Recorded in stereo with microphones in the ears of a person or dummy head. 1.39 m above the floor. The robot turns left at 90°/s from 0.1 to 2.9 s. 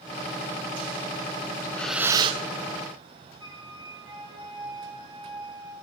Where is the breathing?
25° left, 1.0 m; by 2.4 s 50° right, 1.0 m.